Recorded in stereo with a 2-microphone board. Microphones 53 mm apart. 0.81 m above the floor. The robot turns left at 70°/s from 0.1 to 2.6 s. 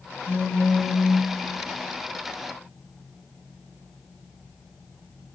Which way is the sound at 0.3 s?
80° left.